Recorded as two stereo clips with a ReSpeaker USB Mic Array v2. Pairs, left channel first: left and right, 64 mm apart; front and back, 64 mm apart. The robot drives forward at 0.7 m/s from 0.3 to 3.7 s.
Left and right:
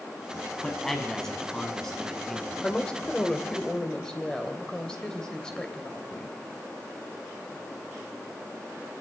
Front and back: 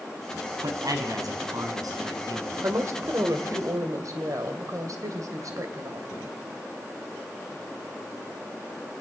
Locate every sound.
0.6 s a man speaking: 170° left, 3.5 m; by 2.8 s 175° left, 5 m
2.6 s a woman speaking: 160° left, 1.8 m; by 6.4 s 165° left, 2.5 m